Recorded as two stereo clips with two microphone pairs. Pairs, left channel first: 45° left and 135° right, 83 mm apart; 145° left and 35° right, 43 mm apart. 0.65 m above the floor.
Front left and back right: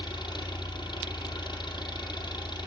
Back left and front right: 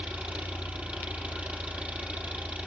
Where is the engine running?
20° left, 5 m.